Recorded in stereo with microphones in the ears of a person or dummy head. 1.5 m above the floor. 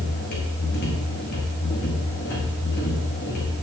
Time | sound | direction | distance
0.0 | a machine running | 55° left (ahead or behind) | 1.6 m